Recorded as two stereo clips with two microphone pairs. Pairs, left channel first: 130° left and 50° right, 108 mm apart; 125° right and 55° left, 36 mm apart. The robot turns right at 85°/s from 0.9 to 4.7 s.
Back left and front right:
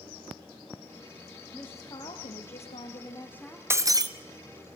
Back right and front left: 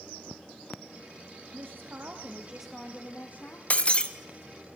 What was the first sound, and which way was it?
A woman speaking, 50° left.